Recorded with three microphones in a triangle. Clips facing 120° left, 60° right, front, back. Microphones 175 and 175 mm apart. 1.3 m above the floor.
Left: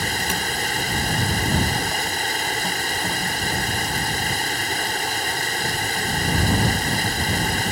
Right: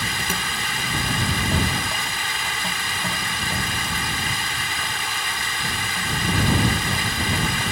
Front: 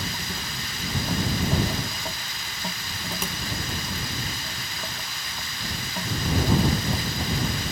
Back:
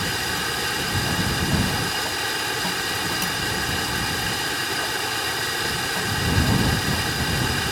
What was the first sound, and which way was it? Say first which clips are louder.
Running water: left 3 dB, back 6 dB; 170° left.